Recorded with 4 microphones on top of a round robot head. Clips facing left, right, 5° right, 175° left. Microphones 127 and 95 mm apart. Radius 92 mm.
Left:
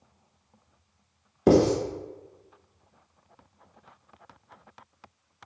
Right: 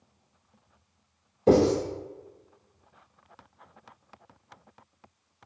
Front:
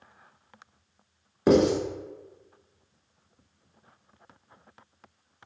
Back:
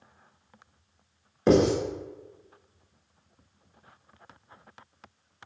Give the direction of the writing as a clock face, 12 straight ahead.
9 o'clock.